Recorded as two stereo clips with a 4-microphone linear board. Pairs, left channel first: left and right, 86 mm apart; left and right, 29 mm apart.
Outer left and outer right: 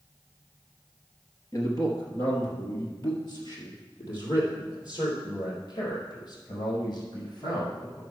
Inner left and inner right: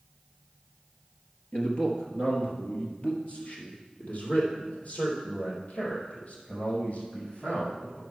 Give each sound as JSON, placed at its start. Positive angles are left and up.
{"t": 1.5, "sound": "a man speaking", "side_deg": 45, "distance_m": 2.0}